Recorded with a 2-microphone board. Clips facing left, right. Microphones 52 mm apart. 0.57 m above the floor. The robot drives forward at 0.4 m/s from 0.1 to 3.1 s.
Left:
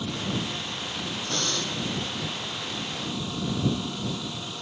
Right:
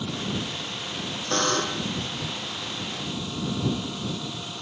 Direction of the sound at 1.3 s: 50° right (ahead or behind).